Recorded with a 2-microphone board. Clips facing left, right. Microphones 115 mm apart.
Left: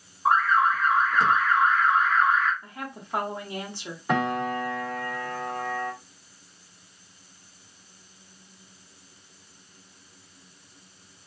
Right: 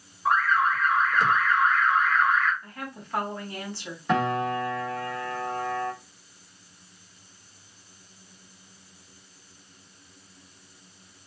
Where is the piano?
10° left (ahead or behind), 1.8 m.